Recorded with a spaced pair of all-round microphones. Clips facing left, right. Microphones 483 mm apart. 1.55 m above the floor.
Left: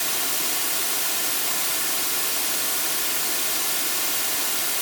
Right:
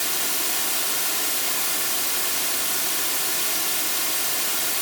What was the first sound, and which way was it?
Only background noise.